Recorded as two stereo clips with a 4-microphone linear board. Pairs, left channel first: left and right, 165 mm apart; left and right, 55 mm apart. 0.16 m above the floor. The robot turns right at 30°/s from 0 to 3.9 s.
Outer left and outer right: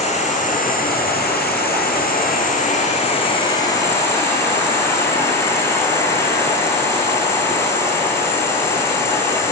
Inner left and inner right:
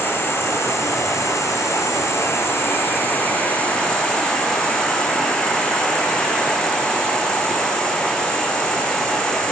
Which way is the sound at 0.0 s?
45° left.